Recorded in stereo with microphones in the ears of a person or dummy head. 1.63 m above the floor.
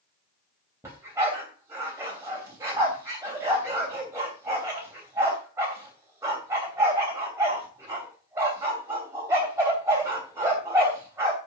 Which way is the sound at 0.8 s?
15° right (ahead or behind).